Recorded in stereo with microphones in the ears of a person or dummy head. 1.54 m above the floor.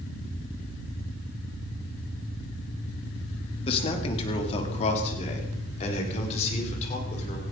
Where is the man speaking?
35° left (ahead or behind), 2.5 m.